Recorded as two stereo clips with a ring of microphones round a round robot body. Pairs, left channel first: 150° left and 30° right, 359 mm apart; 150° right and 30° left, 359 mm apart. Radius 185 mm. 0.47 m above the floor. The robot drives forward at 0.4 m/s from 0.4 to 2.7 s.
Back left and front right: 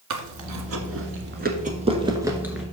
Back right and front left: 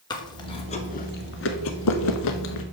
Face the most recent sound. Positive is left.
turn(degrees=-120)